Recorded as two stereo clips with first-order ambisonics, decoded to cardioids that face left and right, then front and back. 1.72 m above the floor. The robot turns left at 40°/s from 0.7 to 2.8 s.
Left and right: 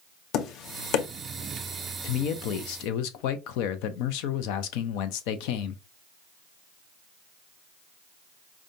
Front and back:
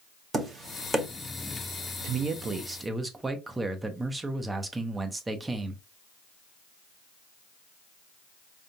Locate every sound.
0.3 s tapping: 110° left, 0.8 m; by 1.1 s 95° left, 0.8 m
2.0 s a man speaking: 130° left, 0.7 m; by 5.8 s 100° left, 0.7 m